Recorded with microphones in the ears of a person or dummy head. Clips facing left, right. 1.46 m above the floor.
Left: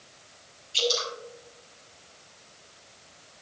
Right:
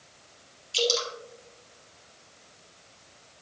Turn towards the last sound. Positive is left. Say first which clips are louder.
# right 1 dB
turn(degrees=-65)  # may be behind; listen again after turning